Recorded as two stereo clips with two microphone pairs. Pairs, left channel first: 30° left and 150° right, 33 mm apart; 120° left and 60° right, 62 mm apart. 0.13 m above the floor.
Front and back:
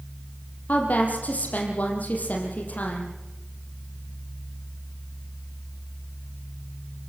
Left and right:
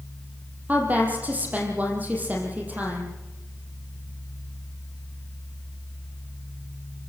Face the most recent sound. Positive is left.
turn(degrees=0)